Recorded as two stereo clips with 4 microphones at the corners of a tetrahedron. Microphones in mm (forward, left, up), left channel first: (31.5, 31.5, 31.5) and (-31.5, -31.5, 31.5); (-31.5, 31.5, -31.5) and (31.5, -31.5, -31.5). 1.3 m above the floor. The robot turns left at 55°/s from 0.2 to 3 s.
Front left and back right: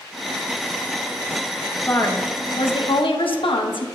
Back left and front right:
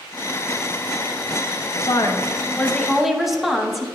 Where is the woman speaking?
110° left, 0.7 m; by 3.9 s 45° left, 0.7 m.